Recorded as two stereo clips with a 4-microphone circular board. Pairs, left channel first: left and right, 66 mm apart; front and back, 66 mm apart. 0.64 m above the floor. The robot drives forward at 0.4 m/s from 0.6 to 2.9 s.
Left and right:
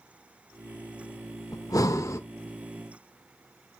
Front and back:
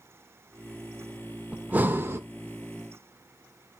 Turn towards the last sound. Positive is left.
turn(degrees=145)